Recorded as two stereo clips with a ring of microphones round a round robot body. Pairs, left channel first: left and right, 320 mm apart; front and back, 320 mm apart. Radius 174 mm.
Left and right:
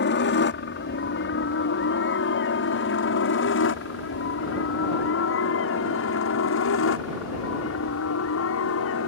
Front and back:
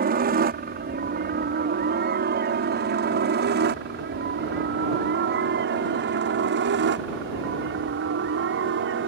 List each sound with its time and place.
0.0 s a helicopter: 130° left